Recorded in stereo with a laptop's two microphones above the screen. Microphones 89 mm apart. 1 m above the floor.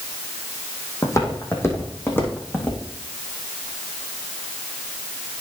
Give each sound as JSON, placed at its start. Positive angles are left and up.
{"t": 1.0, "sound": "footsteps", "side_deg": 35, "distance_m": 2.5}